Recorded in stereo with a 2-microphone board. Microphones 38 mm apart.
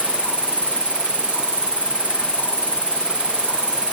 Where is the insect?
35° right (ahead or behind).